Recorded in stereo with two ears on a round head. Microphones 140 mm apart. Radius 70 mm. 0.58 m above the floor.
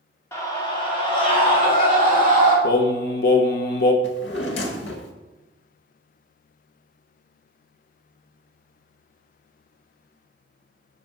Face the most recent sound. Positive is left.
turn(degrees=85)